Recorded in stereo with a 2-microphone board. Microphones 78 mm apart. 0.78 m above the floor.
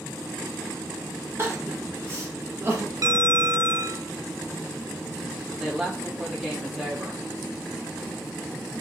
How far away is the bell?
About 0.8 m.